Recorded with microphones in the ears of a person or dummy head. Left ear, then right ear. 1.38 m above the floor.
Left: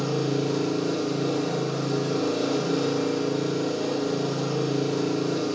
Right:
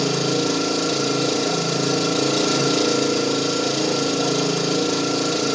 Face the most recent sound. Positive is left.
turn(degrees=-75)  # may be behind; listen again after turning